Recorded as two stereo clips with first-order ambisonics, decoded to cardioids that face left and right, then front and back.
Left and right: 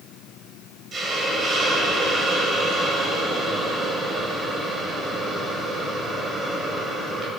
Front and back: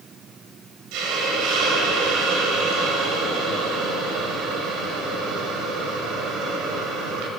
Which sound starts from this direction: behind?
A hiss, at 0.9 s.